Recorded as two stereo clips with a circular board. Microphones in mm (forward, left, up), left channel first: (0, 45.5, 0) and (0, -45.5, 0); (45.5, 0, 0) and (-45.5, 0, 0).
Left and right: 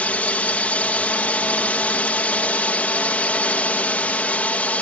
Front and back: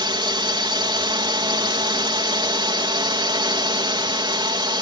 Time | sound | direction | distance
0.0 | a drone | 160° left | ?